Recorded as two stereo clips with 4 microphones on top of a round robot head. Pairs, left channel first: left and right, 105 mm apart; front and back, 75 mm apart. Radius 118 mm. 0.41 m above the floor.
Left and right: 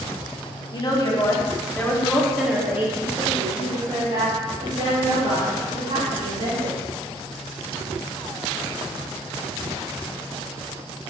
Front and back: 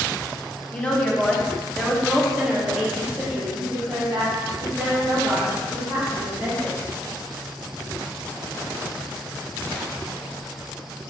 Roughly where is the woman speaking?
Left.